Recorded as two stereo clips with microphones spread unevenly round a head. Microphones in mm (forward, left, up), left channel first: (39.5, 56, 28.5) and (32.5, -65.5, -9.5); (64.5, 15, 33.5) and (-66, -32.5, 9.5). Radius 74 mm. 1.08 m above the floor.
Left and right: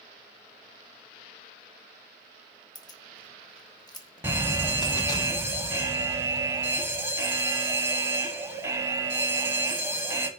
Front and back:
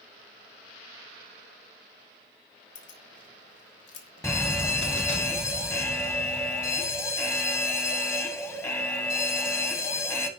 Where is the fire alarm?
55° right, 2 m.